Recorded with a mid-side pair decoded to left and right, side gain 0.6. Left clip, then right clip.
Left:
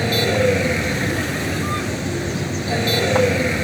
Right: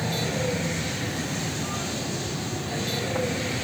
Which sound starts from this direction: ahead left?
A vehicle, at 0.0 s.